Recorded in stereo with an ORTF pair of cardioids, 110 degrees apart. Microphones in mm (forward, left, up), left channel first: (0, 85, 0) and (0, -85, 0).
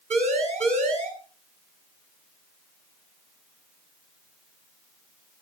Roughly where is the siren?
Ahead right.